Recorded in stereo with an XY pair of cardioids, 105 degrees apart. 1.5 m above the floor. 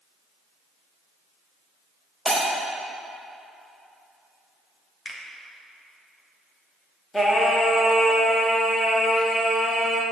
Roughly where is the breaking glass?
Ahead.